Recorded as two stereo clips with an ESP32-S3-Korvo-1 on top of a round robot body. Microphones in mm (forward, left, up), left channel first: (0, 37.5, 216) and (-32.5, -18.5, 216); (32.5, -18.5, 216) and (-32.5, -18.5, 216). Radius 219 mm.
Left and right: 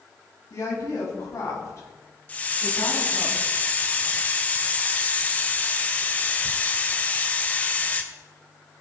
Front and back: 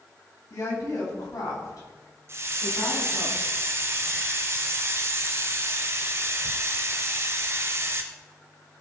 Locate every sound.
0.5 s a woman speaking: 30° left, 5.5 m; by 3.3 s 15° left, 6 m
2.3 s a hiss: 130° left, 0.6 m